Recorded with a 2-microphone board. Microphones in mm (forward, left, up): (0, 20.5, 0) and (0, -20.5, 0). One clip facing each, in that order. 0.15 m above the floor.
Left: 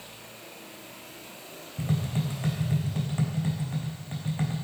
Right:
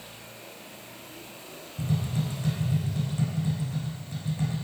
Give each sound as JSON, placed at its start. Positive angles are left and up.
{"t": 1.8, "sound": "tapping", "side_deg": 35, "distance_m": 3.5}